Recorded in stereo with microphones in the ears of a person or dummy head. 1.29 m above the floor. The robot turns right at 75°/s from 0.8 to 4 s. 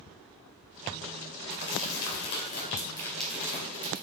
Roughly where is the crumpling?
Left.